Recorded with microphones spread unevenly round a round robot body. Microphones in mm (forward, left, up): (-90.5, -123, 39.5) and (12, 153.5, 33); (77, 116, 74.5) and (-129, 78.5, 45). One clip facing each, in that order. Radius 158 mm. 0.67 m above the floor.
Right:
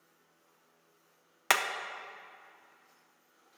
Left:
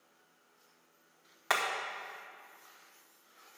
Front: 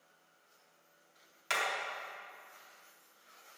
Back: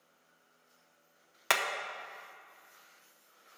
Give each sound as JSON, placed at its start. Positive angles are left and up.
{"t": 1.5, "sound": "hammering", "azimuth_deg": -155, "distance_m": 0.7}